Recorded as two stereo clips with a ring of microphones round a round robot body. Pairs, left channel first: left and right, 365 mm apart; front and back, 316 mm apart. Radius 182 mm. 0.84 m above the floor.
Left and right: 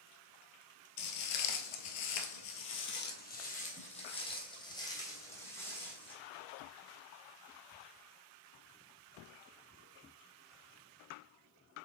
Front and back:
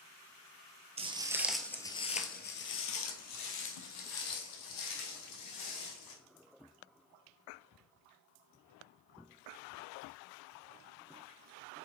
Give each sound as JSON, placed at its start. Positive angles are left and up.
{"t": 1.0, "sound": "footsteps", "azimuth_deg": 115, "distance_m": 1.2}